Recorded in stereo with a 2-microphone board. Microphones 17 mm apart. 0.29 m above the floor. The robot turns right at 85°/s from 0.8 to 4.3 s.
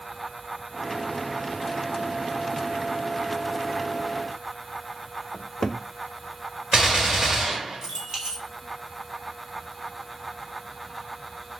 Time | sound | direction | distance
5.3 | a cupboard door | 20° left (ahead or behind) | 0.5 m
6.7 | a gunshot | 45° right (ahead or behind) | 2.0 m